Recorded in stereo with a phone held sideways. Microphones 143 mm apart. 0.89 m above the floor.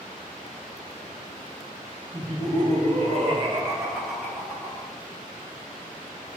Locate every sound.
2.1 s laughter: 65° right (ahead or behind), 1.1 m; by 4.9 s 25° left (ahead or behind), 0.8 m